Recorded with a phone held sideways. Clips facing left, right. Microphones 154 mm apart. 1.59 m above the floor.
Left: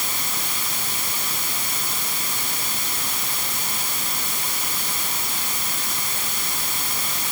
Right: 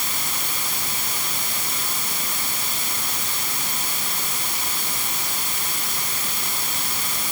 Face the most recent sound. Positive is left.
No sound to turn to.